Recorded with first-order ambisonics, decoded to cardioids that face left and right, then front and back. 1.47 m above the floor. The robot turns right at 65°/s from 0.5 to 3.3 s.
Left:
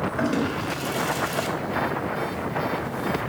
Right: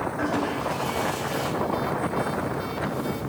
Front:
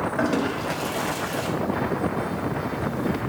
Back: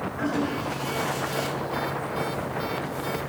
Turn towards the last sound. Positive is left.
turn(degrees=-140)